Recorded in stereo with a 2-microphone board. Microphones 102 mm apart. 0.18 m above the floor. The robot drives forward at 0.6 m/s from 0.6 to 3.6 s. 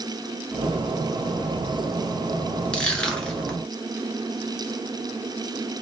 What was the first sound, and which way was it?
Crushing, 10° left (ahead or behind).